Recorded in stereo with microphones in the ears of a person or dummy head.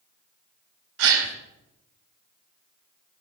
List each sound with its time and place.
1.0 s a gasp: 70° right (ahead or behind), 1.8 m